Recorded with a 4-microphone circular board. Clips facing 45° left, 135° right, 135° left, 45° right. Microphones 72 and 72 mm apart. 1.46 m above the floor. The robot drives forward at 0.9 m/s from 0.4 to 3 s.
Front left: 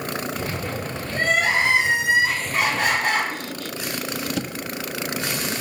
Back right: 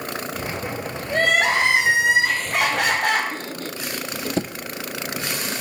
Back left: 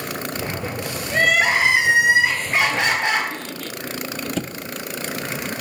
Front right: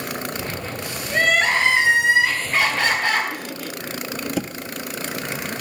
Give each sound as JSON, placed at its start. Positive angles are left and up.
{"t": 1.1, "sound": "crying", "azimuth_deg": -140, "distance_m": 2.0}
{"t": 3.3, "sound": "a squeak", "azimuth_deg": -125, "distance_m": 0.5}